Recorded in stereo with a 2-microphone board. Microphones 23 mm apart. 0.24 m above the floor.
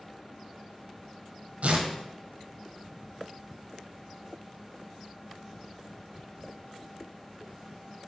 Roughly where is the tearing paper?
Right.